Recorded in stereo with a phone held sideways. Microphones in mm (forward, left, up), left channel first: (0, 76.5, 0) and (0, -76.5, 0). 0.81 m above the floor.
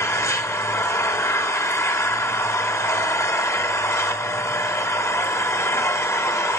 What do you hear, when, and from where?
0.0 s an engine running: 20° left (ahead or behind), 1.3 m